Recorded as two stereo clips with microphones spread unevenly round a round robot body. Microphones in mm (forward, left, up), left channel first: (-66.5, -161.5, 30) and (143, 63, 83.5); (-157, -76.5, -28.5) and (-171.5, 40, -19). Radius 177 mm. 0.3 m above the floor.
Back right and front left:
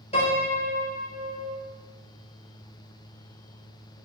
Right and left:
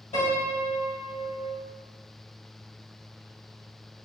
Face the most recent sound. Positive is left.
turn(degrees=-60)